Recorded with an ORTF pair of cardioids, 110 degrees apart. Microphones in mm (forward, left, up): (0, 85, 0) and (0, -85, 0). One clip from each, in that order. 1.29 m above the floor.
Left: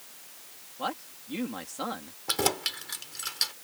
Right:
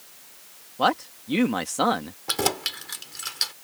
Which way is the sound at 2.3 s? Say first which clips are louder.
Right 2 dB; 15° right.